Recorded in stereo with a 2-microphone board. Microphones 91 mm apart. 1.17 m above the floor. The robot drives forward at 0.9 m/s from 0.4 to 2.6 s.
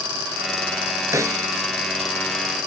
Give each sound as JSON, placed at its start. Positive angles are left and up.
{"t": 1.1, "sound": "a snare drum", "side_deg": -35}